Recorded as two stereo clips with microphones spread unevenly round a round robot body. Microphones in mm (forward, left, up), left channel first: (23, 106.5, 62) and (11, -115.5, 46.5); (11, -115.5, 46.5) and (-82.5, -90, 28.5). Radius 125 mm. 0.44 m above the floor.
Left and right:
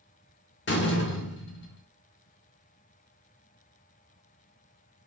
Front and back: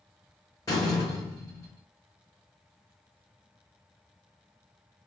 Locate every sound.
0.7 s a door slam: 50° left, 0.9 m